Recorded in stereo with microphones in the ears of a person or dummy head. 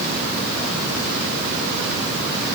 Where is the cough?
I don't hear a cough.